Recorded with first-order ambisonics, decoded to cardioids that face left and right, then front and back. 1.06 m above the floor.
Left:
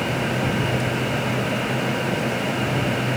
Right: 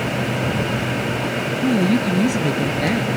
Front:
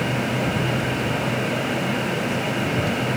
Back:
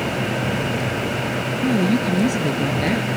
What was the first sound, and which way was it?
A woman speaking, 125° right.